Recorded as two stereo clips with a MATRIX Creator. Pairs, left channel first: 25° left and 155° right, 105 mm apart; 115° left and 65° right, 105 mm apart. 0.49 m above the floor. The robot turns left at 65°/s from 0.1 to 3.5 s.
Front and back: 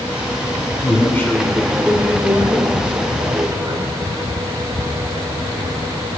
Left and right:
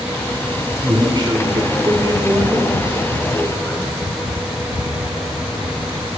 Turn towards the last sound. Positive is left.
turn(degrees=165)